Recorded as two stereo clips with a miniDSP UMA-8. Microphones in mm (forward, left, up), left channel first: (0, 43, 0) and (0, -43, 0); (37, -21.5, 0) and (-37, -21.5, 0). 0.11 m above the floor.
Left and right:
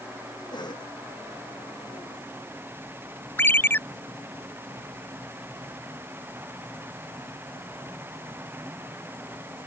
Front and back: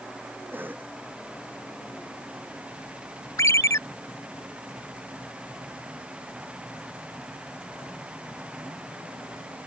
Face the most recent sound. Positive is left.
turn(degrees=30)